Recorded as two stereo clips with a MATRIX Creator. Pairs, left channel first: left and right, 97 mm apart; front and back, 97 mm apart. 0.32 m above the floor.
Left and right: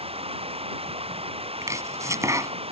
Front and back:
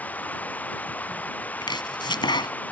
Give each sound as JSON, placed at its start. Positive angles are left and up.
{"t": 0.0, "sound": "running water", "azimuth_deg": -75}
{"t": 1.6, "sound": "chopping", "azimuth_deg": -35}